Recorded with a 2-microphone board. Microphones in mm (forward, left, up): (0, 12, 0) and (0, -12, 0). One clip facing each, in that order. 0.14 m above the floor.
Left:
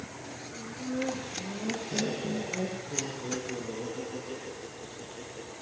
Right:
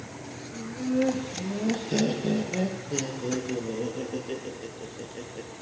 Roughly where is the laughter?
Right.